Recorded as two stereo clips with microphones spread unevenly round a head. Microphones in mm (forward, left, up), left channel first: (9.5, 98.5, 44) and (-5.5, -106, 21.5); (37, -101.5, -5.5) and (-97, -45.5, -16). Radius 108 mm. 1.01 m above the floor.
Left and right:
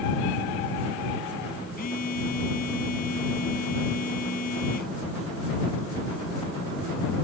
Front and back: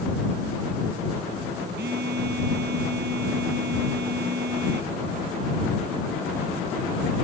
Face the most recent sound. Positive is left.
turn(degrees=135)